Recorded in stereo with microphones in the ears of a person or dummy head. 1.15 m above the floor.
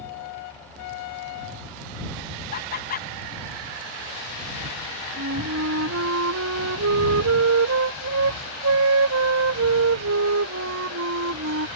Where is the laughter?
45° left (ahead or behind).